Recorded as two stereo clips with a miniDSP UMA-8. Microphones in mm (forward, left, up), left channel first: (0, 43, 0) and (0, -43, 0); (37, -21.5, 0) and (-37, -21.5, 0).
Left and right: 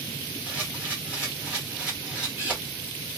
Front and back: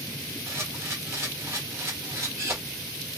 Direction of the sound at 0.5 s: 160° right.